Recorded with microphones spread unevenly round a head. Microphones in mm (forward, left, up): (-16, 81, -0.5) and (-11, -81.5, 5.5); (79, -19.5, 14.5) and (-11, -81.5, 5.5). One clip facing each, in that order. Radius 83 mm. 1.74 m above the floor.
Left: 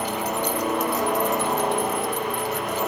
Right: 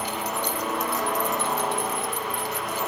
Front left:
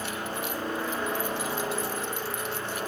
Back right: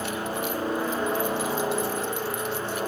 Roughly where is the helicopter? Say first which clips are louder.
Left 4 dB, back right 4 dB; behind left.